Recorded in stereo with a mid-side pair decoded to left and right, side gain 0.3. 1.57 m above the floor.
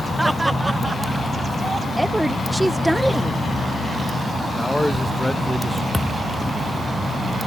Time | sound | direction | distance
0.2 | laughter | 15° right | ?
2.0 | a woman speaking | 10° right | ?
4.6 | a man speaking | 10° left | ?
5.9 | a thud | 10° left | ?